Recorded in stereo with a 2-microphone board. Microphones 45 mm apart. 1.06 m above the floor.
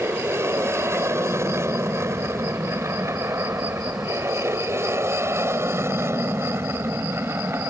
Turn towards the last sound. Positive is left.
turn(degrees=-60)  # may be behind; listen again after turning